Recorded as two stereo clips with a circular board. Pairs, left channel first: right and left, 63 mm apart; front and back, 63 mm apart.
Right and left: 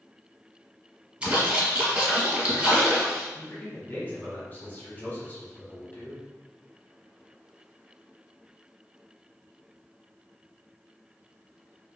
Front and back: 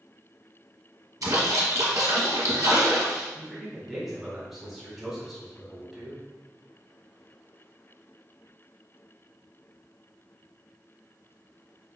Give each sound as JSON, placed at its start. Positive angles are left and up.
{"t": 1.2, "sound": "a splash", "azimuth_deg": 160, "distance_m": 1.0}
{"t": 3.4, "sound": "a man speaking", "azimuth_deg": -95, "distance_m": 1.1}